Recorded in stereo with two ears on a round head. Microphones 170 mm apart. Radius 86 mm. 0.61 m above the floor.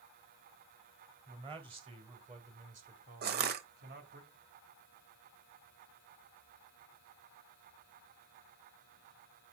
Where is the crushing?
55° right (ahead or behind), 1.2 m.